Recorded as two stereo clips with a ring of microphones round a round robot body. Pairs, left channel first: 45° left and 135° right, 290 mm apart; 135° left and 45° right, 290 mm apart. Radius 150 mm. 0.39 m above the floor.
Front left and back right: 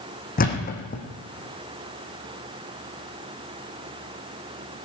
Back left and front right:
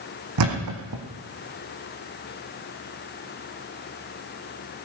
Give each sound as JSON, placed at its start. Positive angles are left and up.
{"t": 0.4, "sound": "a thud", "azimuth_deg": -15, "distance_m": 2.5}